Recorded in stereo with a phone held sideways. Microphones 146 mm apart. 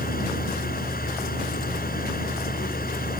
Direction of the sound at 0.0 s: 75° left (ahead or behind).